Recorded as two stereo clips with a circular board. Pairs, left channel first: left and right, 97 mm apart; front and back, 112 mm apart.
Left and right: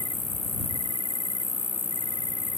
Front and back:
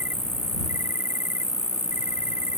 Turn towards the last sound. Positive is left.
turn(degrees=-110)